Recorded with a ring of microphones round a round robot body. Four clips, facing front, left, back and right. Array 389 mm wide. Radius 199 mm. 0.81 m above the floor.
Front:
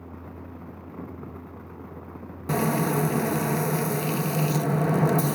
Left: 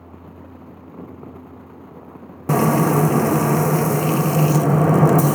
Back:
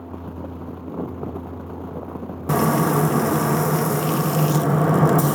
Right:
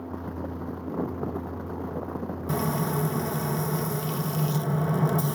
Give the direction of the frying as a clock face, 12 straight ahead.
8 o'clock.